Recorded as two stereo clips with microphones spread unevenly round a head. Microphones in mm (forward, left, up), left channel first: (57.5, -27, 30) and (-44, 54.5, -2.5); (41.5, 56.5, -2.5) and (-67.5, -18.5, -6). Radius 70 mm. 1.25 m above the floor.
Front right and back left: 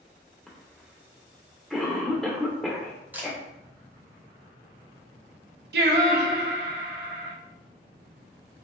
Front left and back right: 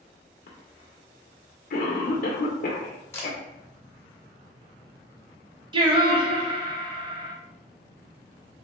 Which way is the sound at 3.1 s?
50° left.